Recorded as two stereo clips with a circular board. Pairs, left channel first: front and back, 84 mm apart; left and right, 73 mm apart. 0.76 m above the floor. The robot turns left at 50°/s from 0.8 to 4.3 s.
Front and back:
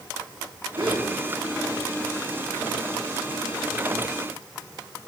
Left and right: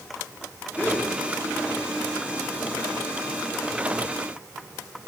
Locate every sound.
0.8 s a gasp: 155° left, 6 m; by 1.1 s 145° left, 6 m